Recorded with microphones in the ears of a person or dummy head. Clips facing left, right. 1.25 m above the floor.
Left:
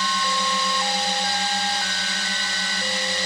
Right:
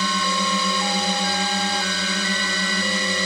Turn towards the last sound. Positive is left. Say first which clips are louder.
# right 2 dB
turn(degrees=-65)  # may be behind; listen again after turning